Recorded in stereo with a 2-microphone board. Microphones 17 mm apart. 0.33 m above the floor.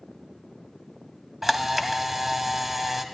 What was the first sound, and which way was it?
A camera shutter, 5° right (ahead or behind).